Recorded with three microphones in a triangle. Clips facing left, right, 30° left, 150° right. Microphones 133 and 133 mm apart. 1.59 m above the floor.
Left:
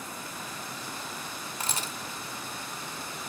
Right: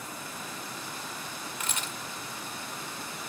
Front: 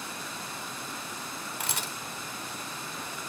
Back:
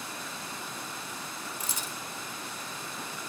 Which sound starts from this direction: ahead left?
A camera shutter, at 1.6 s.